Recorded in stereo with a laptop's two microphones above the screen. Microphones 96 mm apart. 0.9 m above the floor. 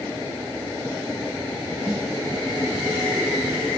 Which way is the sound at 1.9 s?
15° right (ahead or behind).